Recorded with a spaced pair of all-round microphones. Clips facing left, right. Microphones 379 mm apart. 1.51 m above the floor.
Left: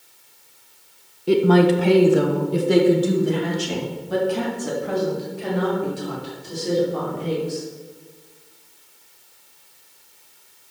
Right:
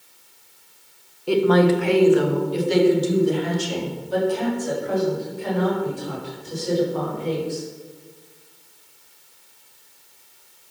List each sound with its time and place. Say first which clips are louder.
1.3 s a woman speaking: left 1 dB; 30° left (ahead or behind), 0.8 m; by 7.7 s 80° left, 5 m